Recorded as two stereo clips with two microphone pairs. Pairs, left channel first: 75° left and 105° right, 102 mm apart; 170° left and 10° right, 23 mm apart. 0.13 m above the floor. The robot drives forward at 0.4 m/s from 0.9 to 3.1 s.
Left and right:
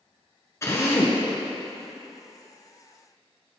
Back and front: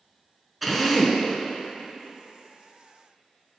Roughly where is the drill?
Left.